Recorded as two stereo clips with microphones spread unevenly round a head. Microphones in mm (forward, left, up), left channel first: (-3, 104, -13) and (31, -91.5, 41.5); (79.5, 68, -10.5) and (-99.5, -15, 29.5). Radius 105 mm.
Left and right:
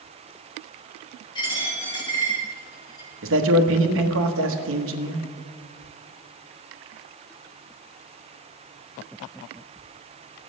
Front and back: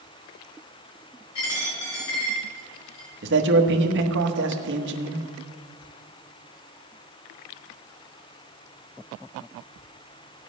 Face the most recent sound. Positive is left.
turn(degrees=-115)